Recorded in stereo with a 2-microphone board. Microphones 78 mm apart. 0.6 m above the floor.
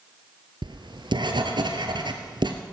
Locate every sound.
0.6 s writing: 75° right (ahead or behind), 1.7 m